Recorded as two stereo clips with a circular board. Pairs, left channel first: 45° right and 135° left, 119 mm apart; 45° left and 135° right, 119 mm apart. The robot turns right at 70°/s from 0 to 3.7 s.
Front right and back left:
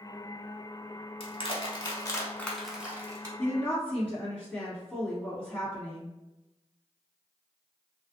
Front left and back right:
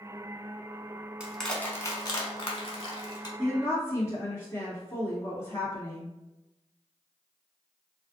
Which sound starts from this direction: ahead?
A woman speaking, at 3.4 s.